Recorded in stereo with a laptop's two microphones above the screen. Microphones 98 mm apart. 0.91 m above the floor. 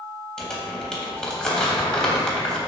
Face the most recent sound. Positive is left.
turn(degrees=10)  # may be behind; listen again after turning